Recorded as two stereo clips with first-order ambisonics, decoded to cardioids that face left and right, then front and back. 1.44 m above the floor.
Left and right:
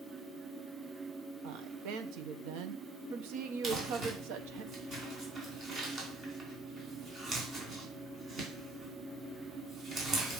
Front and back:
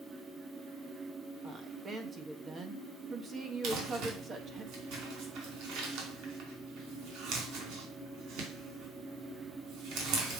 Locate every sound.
1.4 s a woman speaking: 110° right, 1.1 m
3.6 s crumpling: 155° right, 3 m